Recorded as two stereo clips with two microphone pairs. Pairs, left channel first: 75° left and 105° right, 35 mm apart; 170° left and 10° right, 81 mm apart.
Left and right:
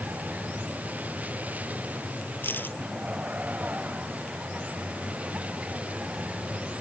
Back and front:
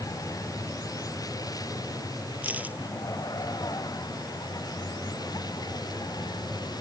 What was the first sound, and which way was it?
A vehicle, 145° right.